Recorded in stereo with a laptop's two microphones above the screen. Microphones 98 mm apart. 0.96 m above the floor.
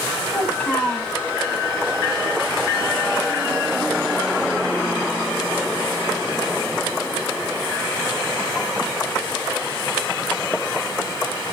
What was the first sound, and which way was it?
A child speaking, 15° left (ahead or behind).